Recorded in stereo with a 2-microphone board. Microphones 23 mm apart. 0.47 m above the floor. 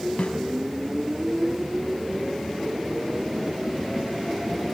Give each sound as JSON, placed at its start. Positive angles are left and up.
{"t": 0.2, "sound": "a snare drum", "side_deg": 70, "distance_m": 4.5}